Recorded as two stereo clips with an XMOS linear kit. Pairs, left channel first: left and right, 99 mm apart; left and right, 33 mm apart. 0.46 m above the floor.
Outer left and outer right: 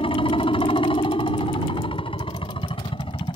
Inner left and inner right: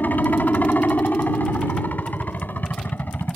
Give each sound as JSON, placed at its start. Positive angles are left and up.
{"t": 0.0, "sound": "a helicopter", "side_deg": 65}